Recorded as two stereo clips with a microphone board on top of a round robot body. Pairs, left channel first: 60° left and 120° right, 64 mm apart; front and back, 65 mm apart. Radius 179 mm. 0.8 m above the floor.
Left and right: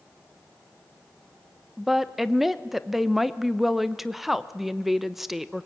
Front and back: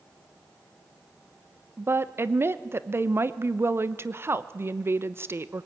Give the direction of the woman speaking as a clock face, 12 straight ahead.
7 o'clock.